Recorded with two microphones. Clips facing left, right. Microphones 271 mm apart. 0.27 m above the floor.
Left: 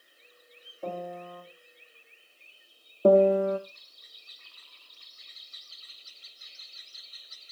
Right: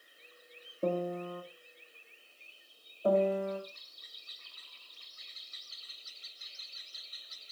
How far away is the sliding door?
No sliding door in this recording.